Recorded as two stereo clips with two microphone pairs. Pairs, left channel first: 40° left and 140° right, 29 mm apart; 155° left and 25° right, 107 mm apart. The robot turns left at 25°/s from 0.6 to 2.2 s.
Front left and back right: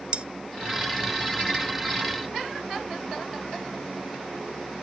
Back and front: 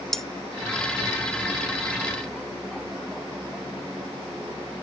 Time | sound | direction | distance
0.1 | cutlery clinking | 120° right | 0.7 m